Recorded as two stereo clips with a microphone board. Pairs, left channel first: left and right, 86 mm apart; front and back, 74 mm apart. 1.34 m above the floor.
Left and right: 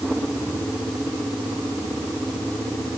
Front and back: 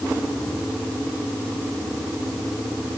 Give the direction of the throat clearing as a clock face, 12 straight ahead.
I don't hear throat clearing.